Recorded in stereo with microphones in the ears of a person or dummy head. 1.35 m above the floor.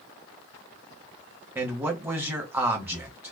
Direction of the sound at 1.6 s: 10° right (ahead or behind).